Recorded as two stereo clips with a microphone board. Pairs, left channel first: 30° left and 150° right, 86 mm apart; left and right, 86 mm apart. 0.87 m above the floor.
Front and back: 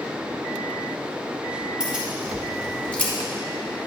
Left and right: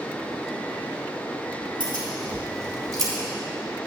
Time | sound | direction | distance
1.8 | keys jangling | 70° right | 2.5 m